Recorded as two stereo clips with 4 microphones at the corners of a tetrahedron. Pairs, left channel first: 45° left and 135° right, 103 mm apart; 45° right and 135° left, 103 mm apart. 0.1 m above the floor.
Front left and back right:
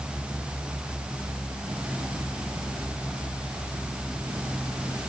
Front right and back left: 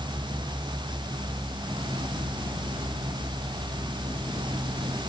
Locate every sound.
Only background noise.